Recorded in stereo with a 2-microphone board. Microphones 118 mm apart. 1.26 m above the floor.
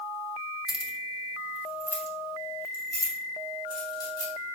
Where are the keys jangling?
5° right (ahead or behind), 1.2 m; by 4.5 s 35° left (ahead or behind), 3 m.